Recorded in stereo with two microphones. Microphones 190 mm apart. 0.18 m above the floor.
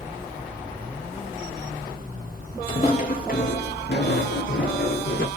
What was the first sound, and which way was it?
Footsteps, 25° left (ahead or behind).